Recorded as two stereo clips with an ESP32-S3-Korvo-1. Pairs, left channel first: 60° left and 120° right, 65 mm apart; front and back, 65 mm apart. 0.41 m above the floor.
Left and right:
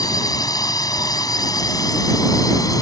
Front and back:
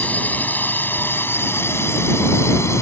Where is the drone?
65° left; by 2.8 s 40° left.